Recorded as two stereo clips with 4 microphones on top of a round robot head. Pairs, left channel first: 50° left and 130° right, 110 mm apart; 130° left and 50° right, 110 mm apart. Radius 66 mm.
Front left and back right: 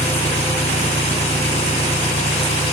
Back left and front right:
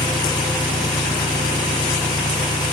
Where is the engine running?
75° left, 1.7 m.